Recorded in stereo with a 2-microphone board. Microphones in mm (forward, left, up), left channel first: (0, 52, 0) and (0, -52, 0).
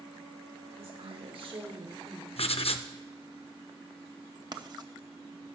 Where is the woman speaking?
65° right (ahead or behind), 2 m; by 2.3 s 30° right (ahead or behind), 1.8 m.